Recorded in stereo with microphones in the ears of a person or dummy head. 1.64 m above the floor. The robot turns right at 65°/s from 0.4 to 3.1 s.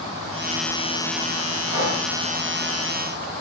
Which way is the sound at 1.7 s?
20° right (ahead or behind).